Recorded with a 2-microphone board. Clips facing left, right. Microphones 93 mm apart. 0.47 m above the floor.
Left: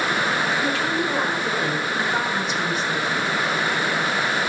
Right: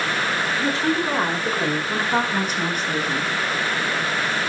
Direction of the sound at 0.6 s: 25° right (ahead or behind).